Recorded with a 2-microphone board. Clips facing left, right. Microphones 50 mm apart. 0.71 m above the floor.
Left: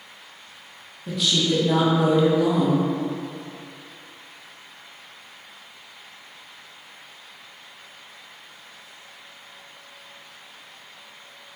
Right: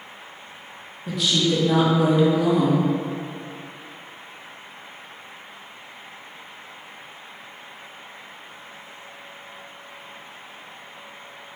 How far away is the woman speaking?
About 0.6 m.